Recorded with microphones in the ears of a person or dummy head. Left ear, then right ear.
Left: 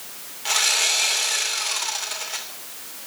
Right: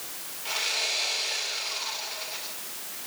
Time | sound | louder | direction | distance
0.5 | sawing | left 8 dB | 50° left (ahead or behind) | 3 m